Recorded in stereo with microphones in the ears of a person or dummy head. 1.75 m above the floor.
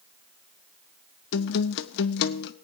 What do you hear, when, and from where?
1.3 s a guitar: 60° left (ahead or behind), 0.7 m